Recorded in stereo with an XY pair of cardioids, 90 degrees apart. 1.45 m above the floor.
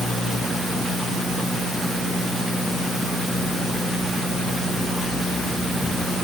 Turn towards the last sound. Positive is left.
No sound to turn to.